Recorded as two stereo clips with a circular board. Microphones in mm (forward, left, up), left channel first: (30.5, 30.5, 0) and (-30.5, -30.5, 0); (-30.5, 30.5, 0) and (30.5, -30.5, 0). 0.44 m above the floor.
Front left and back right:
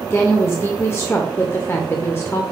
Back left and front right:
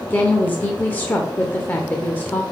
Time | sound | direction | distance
0.1 | a woman speaking | 80° left | 0.9 m